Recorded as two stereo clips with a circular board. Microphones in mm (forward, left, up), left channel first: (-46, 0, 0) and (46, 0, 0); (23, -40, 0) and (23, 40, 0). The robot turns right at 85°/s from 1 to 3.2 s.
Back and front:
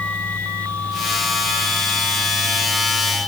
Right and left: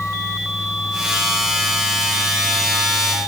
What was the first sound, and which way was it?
Only background noise.